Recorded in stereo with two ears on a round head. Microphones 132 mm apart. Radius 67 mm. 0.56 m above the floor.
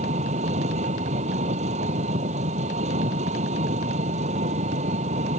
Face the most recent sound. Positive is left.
turn(degrees=-50)  # may be behind; listen again after turning